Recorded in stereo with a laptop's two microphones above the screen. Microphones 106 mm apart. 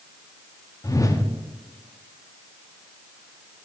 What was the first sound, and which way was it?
A whoosh, 30° left (ahead or behind).